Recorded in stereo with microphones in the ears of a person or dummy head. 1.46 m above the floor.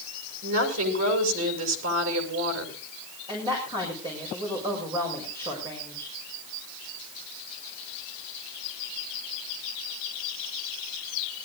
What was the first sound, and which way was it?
A woman speaking, 80° right.